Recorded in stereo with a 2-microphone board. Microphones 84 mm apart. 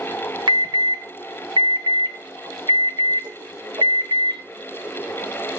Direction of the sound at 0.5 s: 65° right (ahead or behind).